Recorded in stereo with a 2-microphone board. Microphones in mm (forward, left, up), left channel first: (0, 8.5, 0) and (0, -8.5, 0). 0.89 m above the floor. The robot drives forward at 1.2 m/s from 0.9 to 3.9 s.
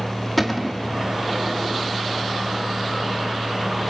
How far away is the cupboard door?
About 1.6 m.